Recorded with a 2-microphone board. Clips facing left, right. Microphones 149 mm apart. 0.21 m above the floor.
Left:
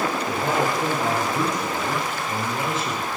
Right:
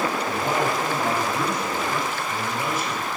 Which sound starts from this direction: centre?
A man speaking, at 0.3 s.